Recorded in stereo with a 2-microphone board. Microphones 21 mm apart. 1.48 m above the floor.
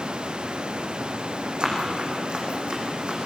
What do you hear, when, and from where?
1.6 s running footsteps: 50° right (ahead or behind), 4.5 m; by 3.2 s 60° right (ahead or behind), 4 m